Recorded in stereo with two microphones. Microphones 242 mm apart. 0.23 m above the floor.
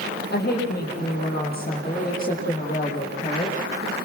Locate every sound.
0.3 s a woman speaking: 40° left (ahead or behind), 9 m; by 3.7 s 30° left (ahead or behind), 10 m